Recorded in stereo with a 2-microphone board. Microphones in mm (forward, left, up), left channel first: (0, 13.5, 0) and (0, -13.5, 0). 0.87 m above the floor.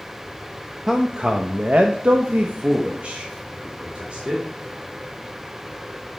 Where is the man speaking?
20° right (ahead or behind), 0.6 m; by 4.4 s 40° right (ahead or behind), 1.7 m.